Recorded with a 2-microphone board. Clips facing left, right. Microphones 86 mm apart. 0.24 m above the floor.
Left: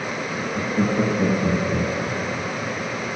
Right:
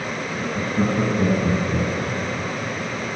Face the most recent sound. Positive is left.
turn(degrees=-35)  # may be behind; listen again after turning